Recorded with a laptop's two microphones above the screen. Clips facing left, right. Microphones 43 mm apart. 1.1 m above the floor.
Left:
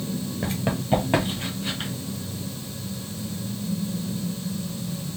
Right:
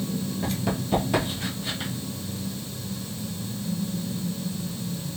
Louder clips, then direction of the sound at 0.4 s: Left 3 dB; 25° left (ahead or behind).